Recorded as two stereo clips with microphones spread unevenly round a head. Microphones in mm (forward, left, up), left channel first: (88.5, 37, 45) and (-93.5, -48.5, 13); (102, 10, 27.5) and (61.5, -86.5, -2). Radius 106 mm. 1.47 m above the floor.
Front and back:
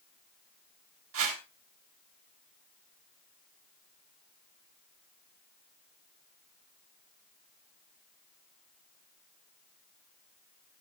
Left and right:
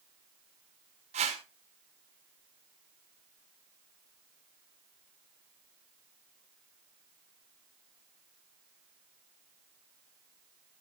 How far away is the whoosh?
About 3.5 m.